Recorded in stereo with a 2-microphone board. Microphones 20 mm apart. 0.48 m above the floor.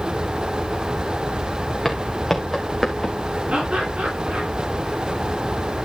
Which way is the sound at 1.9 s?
5° left (ahead or behind).